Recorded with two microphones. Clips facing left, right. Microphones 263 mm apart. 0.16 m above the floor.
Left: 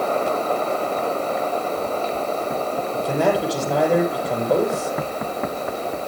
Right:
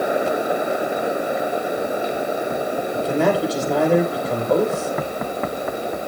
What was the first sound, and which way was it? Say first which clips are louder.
A man speaking: right 1 dB; centre (ahead or behind).